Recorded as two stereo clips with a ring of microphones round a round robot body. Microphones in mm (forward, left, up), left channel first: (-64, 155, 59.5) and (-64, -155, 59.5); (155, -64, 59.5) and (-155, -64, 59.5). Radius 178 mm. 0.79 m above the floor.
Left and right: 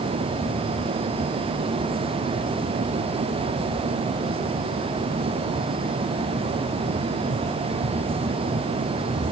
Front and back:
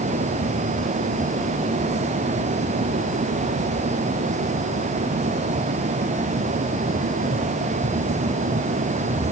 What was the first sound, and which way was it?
Only background noise.